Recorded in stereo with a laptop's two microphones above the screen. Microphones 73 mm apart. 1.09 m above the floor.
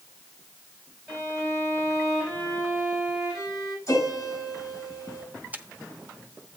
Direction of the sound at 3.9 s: 40° left (ahead or behind).